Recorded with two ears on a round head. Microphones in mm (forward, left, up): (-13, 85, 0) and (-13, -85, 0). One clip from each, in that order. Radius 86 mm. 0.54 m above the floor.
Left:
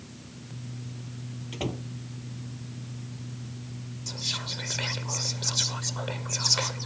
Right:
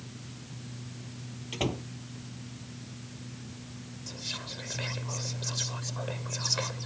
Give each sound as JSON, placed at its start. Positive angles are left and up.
{"t": 1.5, "sound": "a door slam", "side_deg": -15}
{"t": 4.1, "sound": "whispering", "side_deg": 40}